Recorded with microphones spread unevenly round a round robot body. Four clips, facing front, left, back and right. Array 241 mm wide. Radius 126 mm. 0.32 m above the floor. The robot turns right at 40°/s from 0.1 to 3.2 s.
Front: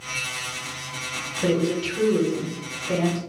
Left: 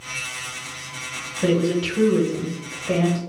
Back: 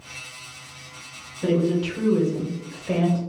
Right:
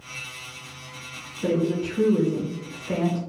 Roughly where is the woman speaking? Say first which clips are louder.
Left 3 dB, back 1 dB; ahead left.